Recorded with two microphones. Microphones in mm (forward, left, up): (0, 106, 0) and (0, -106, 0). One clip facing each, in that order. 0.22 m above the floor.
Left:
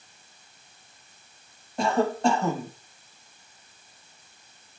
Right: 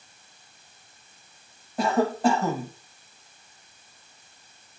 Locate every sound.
1.8 s a cough: 5° right (ahead or behind), 1.0 m